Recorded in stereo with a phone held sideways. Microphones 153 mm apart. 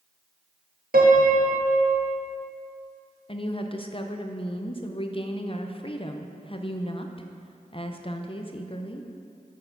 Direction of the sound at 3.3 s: 35° left (ahead or behind).